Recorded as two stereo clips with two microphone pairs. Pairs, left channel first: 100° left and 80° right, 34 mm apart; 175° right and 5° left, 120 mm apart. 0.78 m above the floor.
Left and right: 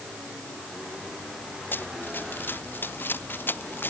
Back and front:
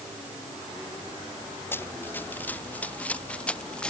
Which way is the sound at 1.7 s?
115° left.